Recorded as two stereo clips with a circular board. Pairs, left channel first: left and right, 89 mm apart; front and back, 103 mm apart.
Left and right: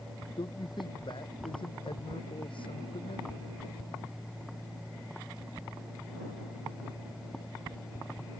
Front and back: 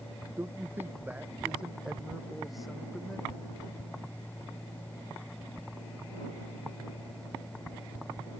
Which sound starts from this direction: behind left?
A man speaking, at 0.4 s.